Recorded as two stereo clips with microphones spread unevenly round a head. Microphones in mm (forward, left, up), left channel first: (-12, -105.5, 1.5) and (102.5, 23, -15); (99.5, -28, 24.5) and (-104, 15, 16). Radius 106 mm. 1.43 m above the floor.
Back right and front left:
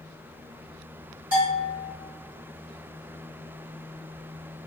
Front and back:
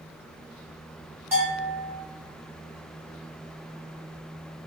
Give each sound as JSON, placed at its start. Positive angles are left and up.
{"t": 1.3, "sound": "a bell", "azimuth_deg": 90, "distance_m": 1.7}